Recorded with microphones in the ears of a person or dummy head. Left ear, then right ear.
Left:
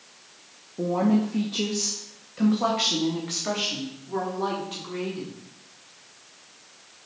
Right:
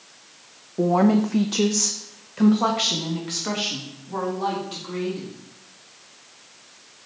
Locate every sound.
0.8 s a woman speaking: 65° right (ahead or behind), 0.6 m; by 5.3 s 10° left (ahead or behind), 2 m